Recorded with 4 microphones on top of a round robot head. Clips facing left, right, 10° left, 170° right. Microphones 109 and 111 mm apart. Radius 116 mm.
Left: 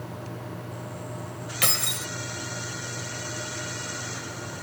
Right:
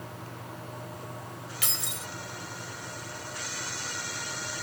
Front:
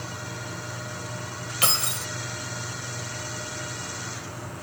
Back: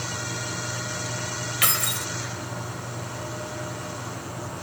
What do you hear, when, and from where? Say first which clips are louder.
1.6 s keys jangling: left 10 dB, front 1 dB; 70° left